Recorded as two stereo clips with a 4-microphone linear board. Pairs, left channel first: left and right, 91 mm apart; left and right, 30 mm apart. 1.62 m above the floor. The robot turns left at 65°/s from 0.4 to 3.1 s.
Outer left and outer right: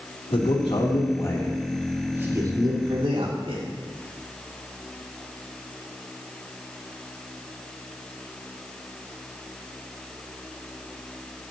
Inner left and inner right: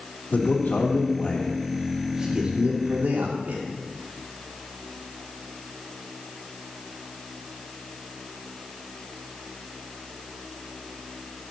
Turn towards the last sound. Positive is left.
turn(degrees=-80)